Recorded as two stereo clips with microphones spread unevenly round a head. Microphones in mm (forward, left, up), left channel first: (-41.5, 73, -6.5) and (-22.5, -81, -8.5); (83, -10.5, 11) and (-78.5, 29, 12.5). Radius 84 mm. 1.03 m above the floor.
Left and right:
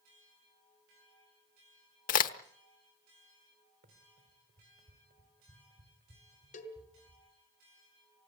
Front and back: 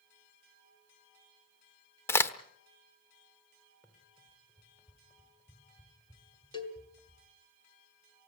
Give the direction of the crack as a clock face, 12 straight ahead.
10 o'clock.